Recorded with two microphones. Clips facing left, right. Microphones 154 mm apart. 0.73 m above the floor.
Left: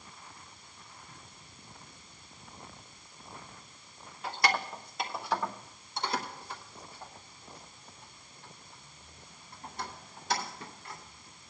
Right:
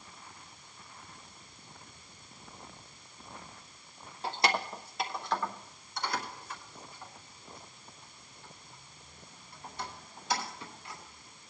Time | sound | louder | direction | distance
4.2 | keys jangling | even | 35° right (ahead or behind) | 1.0 m